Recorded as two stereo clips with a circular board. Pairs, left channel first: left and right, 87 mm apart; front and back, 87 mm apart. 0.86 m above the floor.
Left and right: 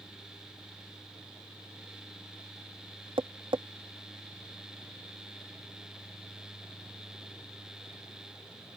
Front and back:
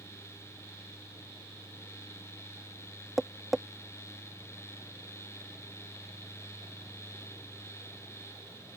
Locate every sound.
3.2 s tapping: 90° right